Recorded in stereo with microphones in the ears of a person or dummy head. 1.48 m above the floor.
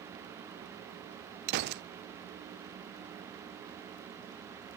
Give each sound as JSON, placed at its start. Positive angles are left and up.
{"t": 1.5, "sound": "a gunshot", "side_deg": -55, "distance_m": 0.6}